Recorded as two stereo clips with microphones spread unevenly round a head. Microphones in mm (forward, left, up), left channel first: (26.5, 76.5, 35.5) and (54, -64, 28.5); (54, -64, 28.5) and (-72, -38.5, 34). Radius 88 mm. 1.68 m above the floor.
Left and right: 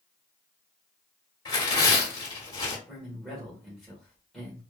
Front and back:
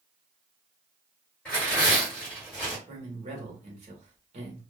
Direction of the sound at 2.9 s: 170° right.